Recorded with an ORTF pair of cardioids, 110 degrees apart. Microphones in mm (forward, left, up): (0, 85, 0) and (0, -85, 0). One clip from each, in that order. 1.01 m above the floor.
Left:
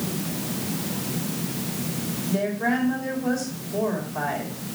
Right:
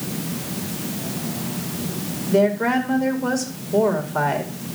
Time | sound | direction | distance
2.3 | a woman speaking | 60° right | 2 m